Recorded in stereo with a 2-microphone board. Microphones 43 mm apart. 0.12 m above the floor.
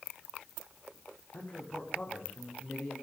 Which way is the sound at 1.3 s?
45° left (ahead or behind).